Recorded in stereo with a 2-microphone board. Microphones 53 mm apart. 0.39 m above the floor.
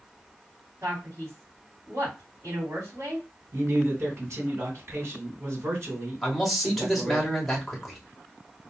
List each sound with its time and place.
0.8 s a man speaking: 60° right (ahead or behind), 3 m
3.5 s a man speaking: 60° right (ahead or behind), 2.5 m
6.2 s a man speaking: centre (ahead or behind), 1.2 m